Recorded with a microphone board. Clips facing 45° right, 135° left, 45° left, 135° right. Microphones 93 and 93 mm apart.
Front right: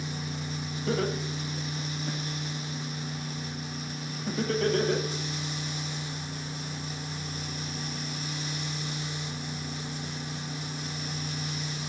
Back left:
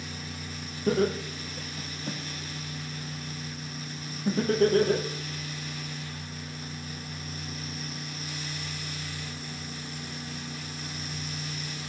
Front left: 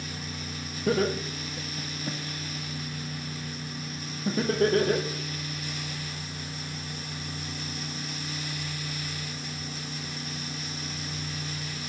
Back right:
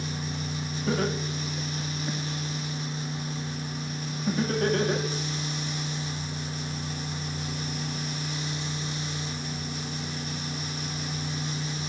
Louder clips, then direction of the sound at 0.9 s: Back left 4 dB, front left 3 dB; 85° left.